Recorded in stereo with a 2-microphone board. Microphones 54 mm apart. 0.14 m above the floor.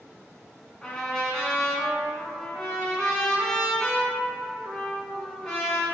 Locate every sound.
0.8 s a trumpet: 10° left (ahead or behind), 0.7 m